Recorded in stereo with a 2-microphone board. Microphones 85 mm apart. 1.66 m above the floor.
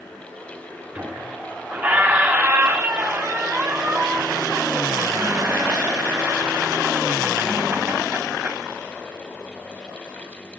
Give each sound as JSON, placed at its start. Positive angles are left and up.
{"t": 0.9, "sound": "a squeak", "side_deg": -20, "distance_m": 1.7}